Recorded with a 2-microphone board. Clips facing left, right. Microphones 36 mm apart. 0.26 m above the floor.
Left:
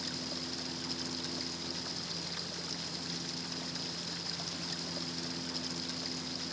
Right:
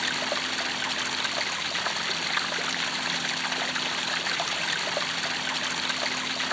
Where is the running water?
65° right (ahead or behind).